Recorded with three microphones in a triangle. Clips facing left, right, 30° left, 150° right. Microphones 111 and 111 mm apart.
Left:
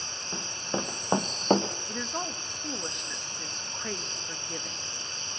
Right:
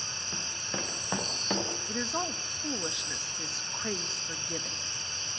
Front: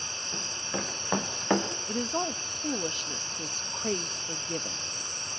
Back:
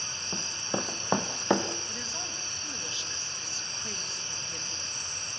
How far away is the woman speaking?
About 1.0 m.